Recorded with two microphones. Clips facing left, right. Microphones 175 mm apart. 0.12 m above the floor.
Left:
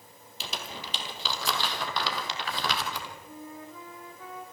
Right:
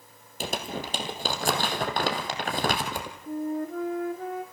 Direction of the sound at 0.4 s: 50° right (ahead or behind).